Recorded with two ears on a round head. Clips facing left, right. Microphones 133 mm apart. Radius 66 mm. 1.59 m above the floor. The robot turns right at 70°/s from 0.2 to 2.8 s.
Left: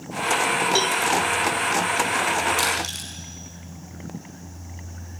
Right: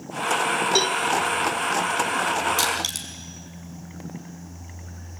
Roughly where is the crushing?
Right.